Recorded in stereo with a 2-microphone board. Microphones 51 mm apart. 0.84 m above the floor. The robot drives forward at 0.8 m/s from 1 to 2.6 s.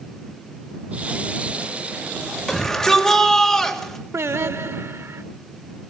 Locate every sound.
2.5 s a shout: 15° left (ahead or behind), 4 m; by 4.0 s 10° left (ahead or behind), 4 m
4.1 s singing: 60° right (ahead or behind), 0.5 m